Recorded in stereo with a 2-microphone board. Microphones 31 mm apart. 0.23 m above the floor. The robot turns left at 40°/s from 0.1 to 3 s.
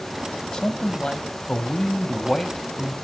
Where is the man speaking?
25° left (ahead or behind), 1.0 m; by 2.9 s 5° left (ahead or behind), 1.0 m.